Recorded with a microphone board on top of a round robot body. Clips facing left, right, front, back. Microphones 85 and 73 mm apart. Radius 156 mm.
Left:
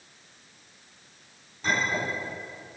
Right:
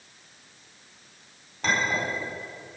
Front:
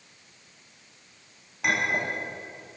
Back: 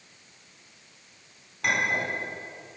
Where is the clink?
80° right, 5 m.